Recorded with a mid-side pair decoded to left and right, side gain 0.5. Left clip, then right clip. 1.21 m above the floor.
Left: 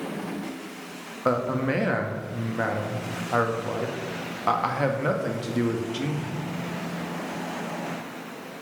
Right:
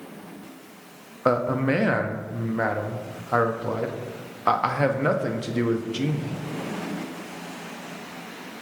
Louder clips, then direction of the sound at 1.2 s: Right 2 dB; 20° right.